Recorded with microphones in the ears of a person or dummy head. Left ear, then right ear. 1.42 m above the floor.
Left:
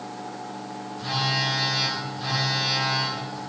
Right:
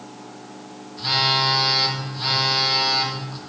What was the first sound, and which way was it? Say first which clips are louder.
A phone buzzing: right 6 dB; 35° right (ahead or behind).